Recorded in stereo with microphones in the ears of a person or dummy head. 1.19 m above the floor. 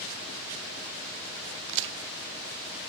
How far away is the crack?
About 0.5 m.